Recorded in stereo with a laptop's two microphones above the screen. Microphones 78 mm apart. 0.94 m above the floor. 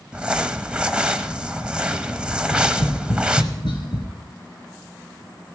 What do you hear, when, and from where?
0.1 s crumpling: 15° right (ahead or behind), 0.9 m
2.4 s tapping: 75° left (ahead or behind), 3.5 m